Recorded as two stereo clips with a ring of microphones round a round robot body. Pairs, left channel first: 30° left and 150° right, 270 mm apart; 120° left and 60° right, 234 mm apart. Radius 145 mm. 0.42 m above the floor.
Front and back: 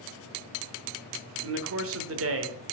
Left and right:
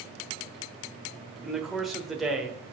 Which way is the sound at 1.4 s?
150° right.